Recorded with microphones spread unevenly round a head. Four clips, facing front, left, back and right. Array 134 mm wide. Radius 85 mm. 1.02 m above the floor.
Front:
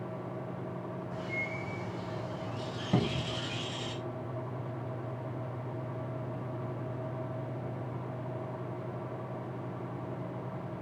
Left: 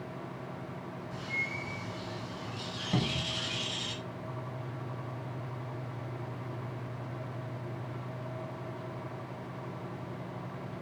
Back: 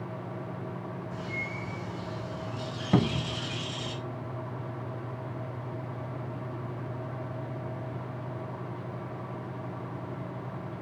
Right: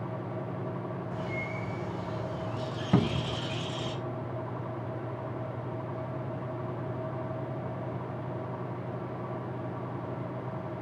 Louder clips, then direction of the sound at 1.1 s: Right 4 dB, back 1 dB; 100° right.